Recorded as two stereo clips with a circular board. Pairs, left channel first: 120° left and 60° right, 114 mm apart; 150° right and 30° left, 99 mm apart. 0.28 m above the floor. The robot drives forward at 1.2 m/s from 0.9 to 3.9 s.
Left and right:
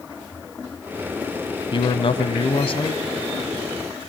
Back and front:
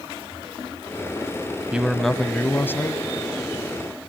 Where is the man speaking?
105° left, 1.5 m; by 3.0 s 150° left, 2.5 m.